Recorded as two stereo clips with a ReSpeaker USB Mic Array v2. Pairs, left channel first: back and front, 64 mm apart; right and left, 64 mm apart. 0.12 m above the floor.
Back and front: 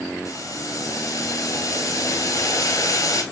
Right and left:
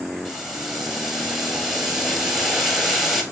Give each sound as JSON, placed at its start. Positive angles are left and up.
{"t": 0.2, "sound": "boiling", "azimuth_deg": 175, "distance_m": 0.9}